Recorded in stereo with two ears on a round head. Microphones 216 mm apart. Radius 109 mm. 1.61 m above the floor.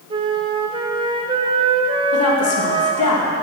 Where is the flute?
20° right (ahead or behind), 0.6 m.